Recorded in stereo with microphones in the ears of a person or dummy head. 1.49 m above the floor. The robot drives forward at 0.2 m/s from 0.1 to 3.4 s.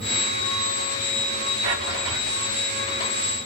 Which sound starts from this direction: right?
A drawer, at 1.6 s.